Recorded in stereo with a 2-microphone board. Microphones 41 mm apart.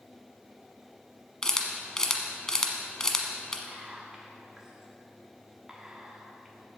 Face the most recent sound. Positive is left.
turn(degrees=-15)  # may be behind; listen again after turning